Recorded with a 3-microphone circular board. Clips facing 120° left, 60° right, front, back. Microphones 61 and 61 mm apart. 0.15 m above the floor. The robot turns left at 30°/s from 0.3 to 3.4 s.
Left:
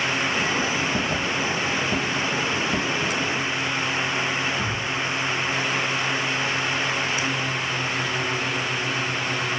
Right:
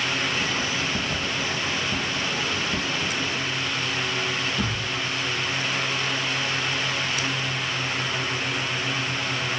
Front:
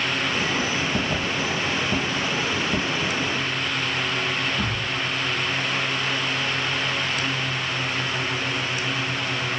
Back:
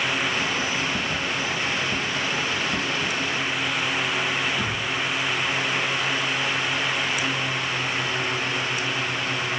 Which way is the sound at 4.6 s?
70° right.